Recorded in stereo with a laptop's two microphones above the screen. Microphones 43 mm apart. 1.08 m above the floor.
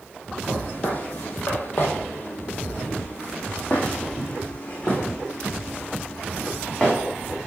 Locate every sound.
0.5 s footsteps: 35° left (ahead or behind), 1.9 m; by 7.0 s 15° left (ahead or behind), 4.5 m